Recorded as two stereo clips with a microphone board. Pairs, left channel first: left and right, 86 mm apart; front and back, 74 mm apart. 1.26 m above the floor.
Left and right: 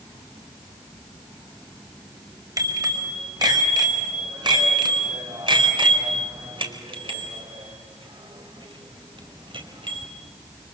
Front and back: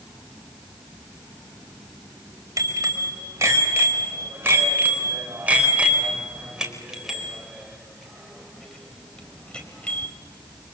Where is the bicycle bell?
135° right, 5 m; by 10.1 s 75° right, 5 m.